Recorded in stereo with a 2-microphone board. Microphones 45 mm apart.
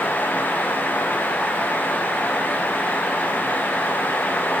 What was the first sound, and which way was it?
Only background noise.